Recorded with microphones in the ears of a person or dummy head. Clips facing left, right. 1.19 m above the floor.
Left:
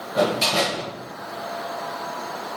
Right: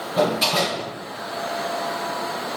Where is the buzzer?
No buzzer in this recording.